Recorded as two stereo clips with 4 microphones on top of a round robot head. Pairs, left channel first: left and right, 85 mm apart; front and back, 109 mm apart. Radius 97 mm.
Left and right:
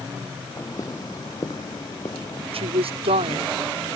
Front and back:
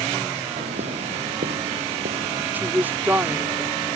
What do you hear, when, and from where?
0.6 s footsteps: 160° left; by 2.4 s 155° left
2.5 s a woman speaking: 105° right